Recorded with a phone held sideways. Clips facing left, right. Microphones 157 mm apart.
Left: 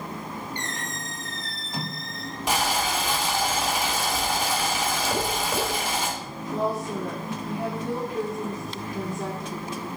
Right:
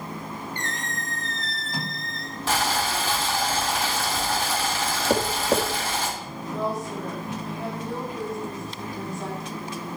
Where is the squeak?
20° left (ahead or behind), 1.6 m.